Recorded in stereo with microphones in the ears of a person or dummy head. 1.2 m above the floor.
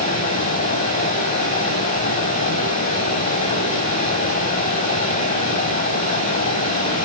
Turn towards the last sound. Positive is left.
turn(degrees=40)  # may be behind; listen again after turning